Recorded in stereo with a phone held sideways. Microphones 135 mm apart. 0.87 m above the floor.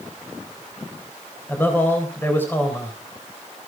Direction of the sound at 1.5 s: 15° left (ahead or behind).